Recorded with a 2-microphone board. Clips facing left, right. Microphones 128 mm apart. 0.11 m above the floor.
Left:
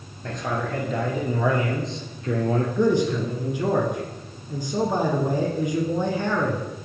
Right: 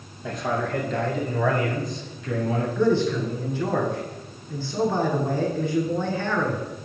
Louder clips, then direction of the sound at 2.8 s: Right 1 dB; 15° left (ahead or behind).